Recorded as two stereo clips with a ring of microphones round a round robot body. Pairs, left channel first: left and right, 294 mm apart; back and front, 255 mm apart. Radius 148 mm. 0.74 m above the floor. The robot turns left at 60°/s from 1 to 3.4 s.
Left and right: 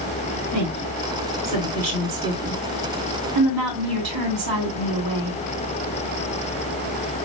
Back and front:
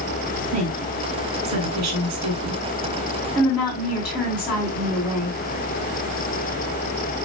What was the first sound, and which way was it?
A woman speaking, 55° left.